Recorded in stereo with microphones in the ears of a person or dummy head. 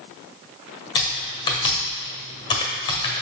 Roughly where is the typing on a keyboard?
Left.